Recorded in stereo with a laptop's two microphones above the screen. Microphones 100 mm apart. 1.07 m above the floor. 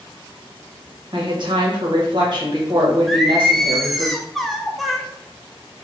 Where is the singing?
Centre (ahead or behind), 0.5 m.